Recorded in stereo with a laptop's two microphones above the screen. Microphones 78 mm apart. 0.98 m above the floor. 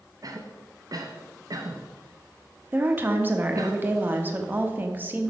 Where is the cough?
55° right (ahead or behind), 0.7 m.